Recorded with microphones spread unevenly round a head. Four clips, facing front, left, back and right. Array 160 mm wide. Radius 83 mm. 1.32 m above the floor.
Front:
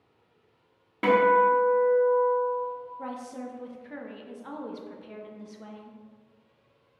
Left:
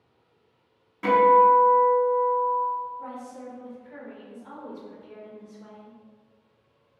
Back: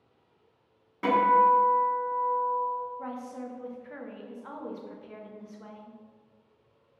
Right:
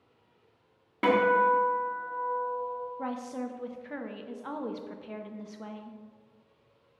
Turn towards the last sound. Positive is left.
turn(degrees=-65)